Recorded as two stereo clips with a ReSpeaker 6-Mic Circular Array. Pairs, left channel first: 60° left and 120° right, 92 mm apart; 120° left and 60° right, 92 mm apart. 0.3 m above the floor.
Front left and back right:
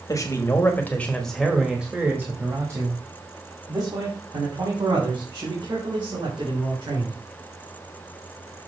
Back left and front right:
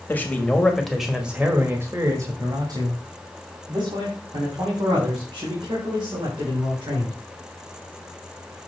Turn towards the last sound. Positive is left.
turn(degrees=-85)